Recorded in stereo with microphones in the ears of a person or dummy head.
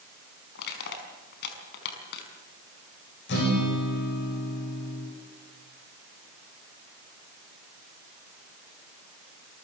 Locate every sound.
0.6 s crushing: 60° left (ahead or behind), 5 m
3.3 s a guitar: 55° left (ahead or behind), 7 m